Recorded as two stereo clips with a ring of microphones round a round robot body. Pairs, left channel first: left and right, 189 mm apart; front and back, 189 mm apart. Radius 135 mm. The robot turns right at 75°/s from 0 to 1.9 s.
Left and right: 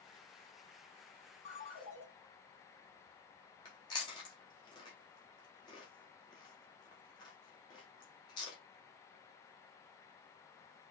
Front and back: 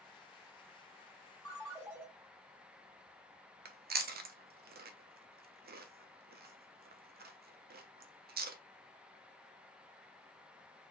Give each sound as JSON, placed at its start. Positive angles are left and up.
{"t": 1.4, "sound": "a ringtone", "azimuth_deg": 70, "distance_m": 1.7}
{"t": 3.6, "sound": "chewing", "azimuth_deg": 155, "distance_m": 0.6}